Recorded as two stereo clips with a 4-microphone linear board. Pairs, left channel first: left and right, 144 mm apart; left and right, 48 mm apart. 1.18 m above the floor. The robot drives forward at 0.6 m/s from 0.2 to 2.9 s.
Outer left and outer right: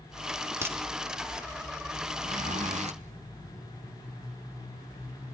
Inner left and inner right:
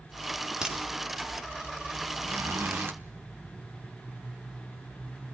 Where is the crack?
20° right (ahead or behind), 3.5 m; by 0.8 s 15° right (ahead or behind), 3.5 m.